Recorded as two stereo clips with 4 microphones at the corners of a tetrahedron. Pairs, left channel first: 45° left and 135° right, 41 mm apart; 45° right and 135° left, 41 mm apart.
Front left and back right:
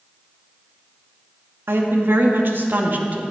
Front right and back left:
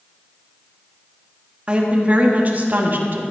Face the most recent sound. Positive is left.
turn(degrees=175)